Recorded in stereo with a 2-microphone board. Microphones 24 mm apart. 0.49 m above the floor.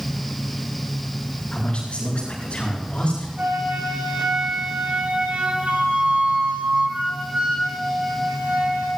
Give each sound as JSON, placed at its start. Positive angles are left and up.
{"t": 1.5, "sound": "a man speaking", "side_deg": 50, "distance_m": 9.5}
{"t": 3.4, "sound": "a flute", "side_deg": -85, "distance_m": 7.0}